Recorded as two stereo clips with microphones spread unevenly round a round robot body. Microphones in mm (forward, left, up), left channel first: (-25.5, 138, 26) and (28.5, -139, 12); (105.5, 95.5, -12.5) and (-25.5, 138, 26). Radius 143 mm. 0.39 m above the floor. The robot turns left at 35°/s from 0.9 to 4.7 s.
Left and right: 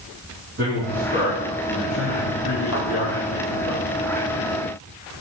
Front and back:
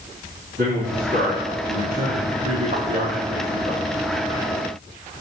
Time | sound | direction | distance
0.6 | a man speaking | 130° right | 4 m
2.7 | a thud | 150° left | 4.5 m